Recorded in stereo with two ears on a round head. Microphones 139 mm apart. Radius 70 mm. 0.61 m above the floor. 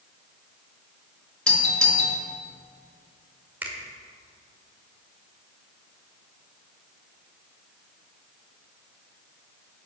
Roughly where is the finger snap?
Centre.